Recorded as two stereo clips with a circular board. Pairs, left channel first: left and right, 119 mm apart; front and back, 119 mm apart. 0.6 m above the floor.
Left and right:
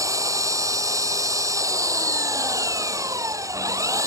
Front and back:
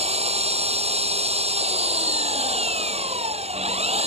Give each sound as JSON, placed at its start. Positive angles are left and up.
{"t": 0.0, "sound": "an engine running", "azimuth_deg": -150}